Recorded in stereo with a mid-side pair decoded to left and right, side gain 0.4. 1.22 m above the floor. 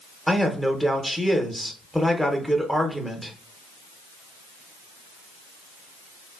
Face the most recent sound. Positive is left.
turn(degrees=0)